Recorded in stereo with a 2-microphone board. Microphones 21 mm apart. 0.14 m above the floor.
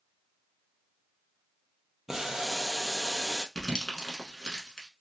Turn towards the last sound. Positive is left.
turn(degrees=35)  # may be behind; listen again after turning